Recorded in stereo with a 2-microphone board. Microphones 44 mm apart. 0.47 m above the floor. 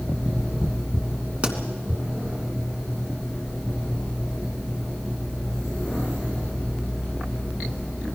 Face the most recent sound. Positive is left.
turn(degrees=-30)  # may be behind; listen again after turning